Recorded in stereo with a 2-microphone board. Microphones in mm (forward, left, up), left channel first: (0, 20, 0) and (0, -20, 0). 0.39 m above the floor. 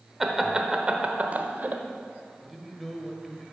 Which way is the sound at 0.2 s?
5° right (ahead or behind).